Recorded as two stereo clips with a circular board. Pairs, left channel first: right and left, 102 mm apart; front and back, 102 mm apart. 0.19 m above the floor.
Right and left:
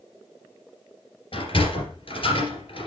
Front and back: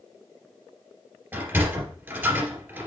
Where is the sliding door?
115° right, 2.5 m.